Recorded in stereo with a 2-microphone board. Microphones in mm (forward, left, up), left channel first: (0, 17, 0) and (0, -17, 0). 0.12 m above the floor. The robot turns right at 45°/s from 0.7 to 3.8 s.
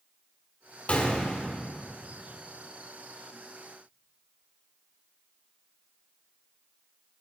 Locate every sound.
0.9 s a gunshot: 135° left, 1.7 m; by 1.6 s 165° left, 1.7 m